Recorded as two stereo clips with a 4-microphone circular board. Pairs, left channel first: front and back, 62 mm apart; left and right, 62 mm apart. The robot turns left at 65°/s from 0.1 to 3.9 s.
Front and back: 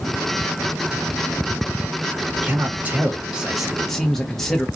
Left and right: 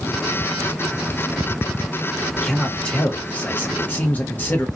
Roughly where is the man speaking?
Behind.